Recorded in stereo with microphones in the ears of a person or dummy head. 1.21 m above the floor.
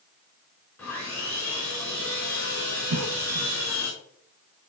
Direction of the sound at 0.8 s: 15° left (ahead or behind).